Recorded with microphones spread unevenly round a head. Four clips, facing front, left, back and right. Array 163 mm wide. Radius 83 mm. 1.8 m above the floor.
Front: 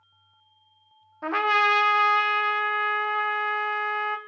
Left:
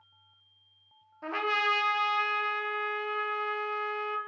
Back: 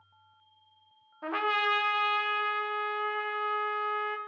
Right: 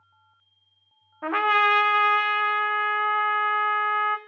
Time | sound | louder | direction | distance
1.2 | a trumpet | right 8 dB, front 7 dB | 60° right | 0.7 m